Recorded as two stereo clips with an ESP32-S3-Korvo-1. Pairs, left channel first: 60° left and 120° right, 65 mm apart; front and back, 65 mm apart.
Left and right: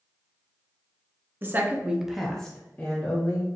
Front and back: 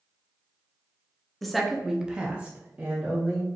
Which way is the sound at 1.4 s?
90° right.